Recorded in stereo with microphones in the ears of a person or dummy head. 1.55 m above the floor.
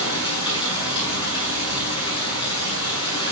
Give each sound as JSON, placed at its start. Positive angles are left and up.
{"t": 0.0, "sound": "running water", "side_deg": 25, "distance_m": 7.0}